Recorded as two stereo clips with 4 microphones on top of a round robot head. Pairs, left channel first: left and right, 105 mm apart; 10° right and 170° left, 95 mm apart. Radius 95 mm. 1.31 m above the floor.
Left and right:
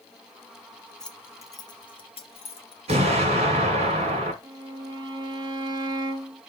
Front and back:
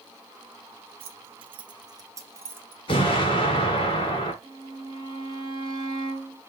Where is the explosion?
50° right, 3 m.